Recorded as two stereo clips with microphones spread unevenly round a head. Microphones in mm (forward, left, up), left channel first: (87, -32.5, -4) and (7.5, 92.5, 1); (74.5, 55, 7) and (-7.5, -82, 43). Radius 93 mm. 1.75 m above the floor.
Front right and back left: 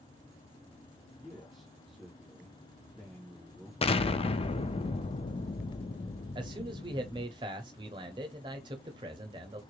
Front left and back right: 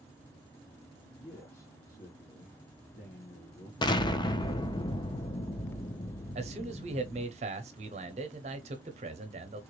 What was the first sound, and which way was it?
A man speaking, 35° left.